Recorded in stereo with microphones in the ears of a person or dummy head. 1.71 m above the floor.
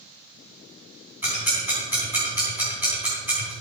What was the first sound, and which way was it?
Ticking, 10° right (ahead or behind).